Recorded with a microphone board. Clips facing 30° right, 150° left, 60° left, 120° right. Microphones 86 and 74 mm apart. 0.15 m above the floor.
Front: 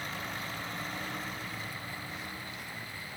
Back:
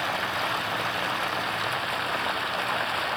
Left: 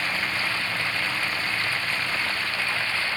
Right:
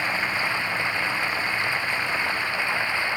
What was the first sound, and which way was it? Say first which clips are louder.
Running water: back 11 dB, right 2 dB; 165° left.